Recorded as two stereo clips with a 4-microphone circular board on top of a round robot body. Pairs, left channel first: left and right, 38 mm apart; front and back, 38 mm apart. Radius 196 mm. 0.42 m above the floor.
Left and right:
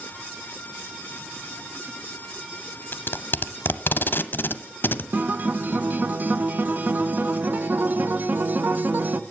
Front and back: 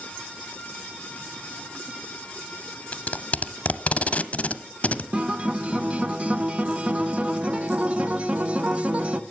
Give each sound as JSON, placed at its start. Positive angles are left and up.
{"t": 2.9, "sound": "tape being pulled", "azimuth_deg": 55, "distance_m": 0.5}
{"t": 5.1, "sound": "a guitar", "azimuth_deg": -125, "distance_m": 0.6}